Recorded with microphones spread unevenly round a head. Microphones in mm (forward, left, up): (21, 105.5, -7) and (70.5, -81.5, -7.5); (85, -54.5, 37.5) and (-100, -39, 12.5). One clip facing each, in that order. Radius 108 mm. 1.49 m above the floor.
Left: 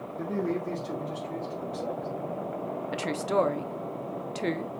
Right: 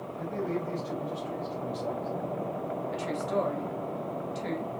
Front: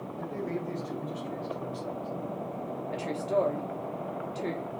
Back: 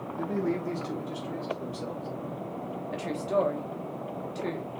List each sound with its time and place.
0.2 s a man speaking: 135° left, 1.0 m; by 2.1 s 170° left, 2.5 m
2.9 s a woman speaking: 85° left, 0.6 m